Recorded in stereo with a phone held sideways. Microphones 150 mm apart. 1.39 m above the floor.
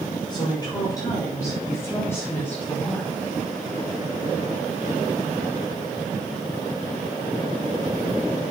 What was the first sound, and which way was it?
A woman speaking, 30° left (ahead or behind).